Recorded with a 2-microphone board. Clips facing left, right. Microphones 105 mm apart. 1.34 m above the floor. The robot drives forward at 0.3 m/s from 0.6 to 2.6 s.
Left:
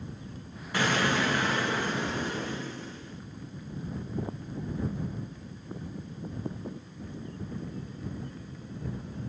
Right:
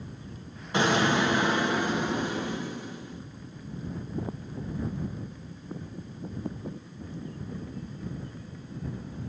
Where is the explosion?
20° right (ahead or behind), 1.7 m; by 3.2 s 15° right (ahead or behind), 2 m.